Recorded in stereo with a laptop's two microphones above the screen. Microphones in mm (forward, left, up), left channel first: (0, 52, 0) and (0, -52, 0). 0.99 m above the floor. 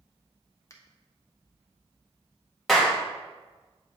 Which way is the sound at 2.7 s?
5° left (ahead or behind).